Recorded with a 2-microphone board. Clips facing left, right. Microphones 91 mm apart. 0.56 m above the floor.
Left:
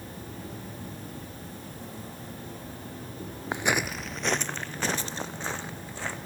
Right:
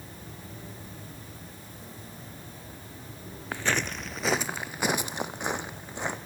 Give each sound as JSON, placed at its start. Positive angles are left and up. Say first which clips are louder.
{"t": 0.0, "sound": "an insect", "louder": "left 5 dB", "side_deg": 60, "distance_m": 9.0}
{"t": 3.5, "sound": "footsteps", "louder": "left 2 dB", "side_deg": 20, "distance_m": 0.5}